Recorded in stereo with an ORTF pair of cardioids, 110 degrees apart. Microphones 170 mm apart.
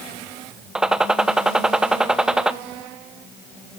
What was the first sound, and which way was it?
A gunshot, 5° right.